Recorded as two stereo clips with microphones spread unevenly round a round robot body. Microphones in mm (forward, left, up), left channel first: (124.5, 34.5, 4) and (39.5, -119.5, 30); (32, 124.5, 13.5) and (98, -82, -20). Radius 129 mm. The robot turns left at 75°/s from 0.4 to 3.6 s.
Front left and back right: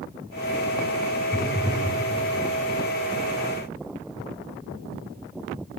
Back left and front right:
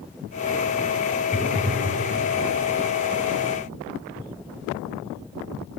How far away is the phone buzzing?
About 0.9 m.